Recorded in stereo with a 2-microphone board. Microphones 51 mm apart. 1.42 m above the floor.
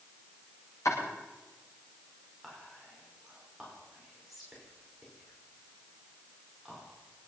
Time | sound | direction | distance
0.8 | chopping | 80° left | 8.5 m
2.4 | whispering | 5° right (ahead or behind) | 5 m